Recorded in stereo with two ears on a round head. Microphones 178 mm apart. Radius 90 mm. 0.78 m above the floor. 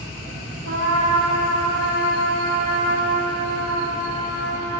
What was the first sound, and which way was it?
A trumpet, 85° right.